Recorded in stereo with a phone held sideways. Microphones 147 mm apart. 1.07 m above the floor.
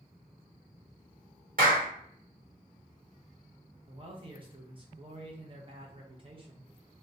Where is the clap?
75° right (ahead or behind), 1.1 m.